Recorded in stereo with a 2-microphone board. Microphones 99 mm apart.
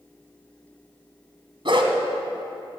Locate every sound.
1.6 s a dog barking: 60° right (ahead or behind), 1.6 m